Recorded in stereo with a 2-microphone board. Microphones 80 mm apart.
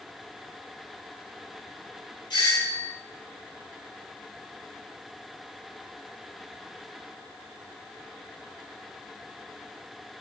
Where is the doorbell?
70° left (ahead or behind), 2.5 m.